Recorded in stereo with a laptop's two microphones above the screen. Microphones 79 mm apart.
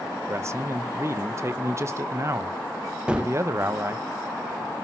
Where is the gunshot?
15° right (ahead or behind), 0.7 m.